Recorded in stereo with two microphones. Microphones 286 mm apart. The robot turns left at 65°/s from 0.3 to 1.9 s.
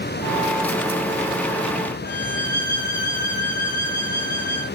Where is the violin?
70° left (ahead or behind), 6.5 m.